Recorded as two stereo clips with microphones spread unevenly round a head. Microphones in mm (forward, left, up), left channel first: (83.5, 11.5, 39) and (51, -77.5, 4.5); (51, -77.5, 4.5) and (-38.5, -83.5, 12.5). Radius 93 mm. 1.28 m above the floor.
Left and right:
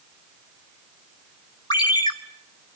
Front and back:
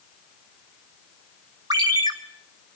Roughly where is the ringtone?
Behind left.